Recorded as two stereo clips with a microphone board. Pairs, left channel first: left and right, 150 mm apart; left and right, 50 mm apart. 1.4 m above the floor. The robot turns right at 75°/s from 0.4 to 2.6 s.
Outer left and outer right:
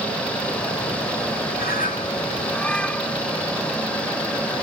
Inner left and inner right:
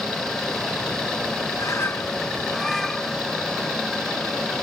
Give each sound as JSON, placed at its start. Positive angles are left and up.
{"t": 1.6, "sound": "a bird", "azimuth_deg": 95}